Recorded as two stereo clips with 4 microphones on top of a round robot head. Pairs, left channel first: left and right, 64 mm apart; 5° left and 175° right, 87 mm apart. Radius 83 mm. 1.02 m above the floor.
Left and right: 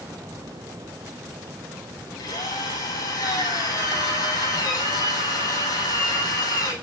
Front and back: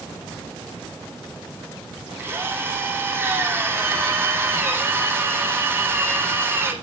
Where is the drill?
115° left, 7.5 m.